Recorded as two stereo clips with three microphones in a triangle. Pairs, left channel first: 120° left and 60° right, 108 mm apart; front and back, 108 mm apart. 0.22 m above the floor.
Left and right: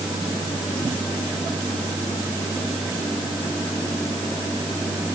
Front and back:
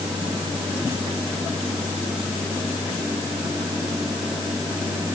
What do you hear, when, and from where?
Only background noise.